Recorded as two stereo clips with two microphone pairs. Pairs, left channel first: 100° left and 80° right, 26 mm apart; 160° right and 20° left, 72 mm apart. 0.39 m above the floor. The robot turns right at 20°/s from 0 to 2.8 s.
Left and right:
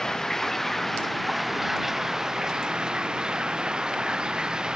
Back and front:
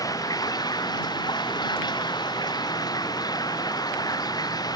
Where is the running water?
165° left; by 4.8 s 140° right.